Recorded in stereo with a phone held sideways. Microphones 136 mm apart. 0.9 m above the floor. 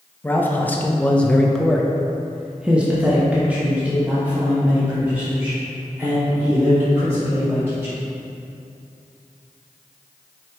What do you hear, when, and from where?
0.2 s a man speaking: 15° left (ahead or behind), 0.9 m; by 8.0 s 15° right (ahead or behind), 3.5 m